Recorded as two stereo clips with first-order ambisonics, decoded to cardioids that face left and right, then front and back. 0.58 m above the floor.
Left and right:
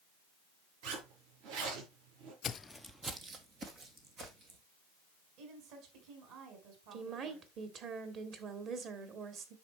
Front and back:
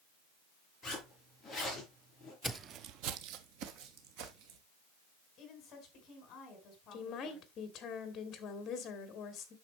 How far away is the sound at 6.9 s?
About 1.6 m.